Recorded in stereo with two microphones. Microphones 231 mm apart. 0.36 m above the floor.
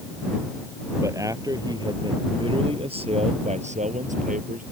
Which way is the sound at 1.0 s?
15° right (ahead or behind).